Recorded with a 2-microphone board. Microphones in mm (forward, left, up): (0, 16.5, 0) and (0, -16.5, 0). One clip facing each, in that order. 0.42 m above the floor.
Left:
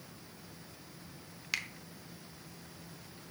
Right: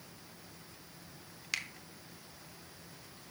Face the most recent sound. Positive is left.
turn(degrees=5)  # may be behind; listen again after turning